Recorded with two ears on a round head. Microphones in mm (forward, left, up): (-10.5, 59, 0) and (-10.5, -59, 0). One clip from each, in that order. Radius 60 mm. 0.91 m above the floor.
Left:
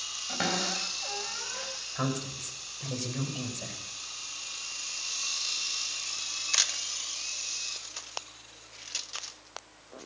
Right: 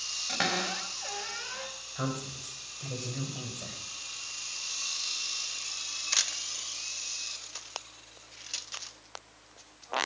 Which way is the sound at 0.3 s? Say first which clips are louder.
Even; 40° right (ahead or behind).